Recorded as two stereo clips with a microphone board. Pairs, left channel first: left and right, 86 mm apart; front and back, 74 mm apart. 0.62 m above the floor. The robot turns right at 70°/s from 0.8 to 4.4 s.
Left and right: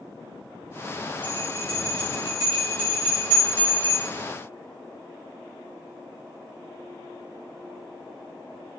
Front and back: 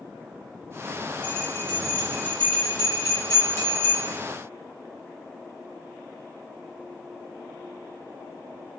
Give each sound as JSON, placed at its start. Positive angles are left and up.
{"t": 1.2, "sound": "a bell", "azimuth_deg": -125, "distance_m": 1.9}